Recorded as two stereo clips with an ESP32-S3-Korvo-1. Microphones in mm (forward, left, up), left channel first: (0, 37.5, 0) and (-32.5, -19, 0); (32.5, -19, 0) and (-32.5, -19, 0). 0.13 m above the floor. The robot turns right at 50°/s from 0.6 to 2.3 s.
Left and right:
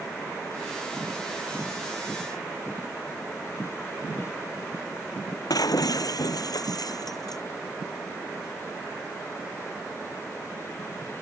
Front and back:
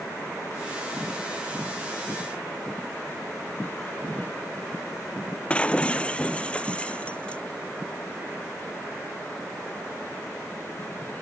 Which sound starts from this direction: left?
Breaking glass, at 5.5 s.